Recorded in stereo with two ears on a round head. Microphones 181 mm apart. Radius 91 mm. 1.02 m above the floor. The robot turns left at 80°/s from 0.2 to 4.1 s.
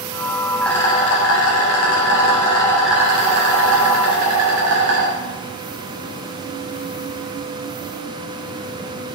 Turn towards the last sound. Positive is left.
turn(degrees=-100)